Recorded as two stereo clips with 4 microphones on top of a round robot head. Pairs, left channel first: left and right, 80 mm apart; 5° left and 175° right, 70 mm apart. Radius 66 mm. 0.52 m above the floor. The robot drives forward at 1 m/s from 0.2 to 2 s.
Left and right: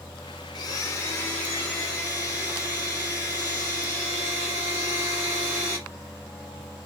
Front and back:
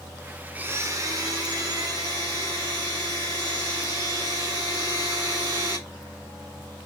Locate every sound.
0.6 s a blender: 115° left, 0.6 m; by 5.8 s 165° left, 1.8 m